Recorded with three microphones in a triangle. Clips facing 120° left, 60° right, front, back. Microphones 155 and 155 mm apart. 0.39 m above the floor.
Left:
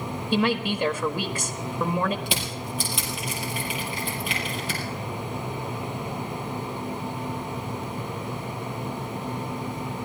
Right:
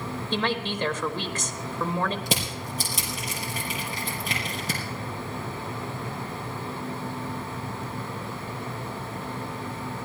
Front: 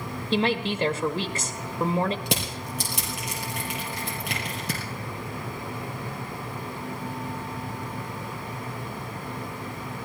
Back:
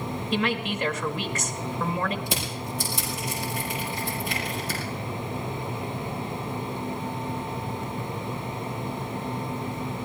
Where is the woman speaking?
45° left, 1.3 m.